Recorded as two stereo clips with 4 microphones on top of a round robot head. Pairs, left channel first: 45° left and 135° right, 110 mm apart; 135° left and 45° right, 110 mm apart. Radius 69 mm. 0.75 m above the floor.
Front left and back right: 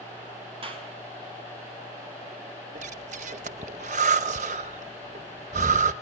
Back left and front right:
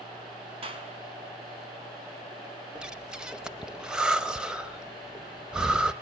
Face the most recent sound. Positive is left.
turn(degrees=-130)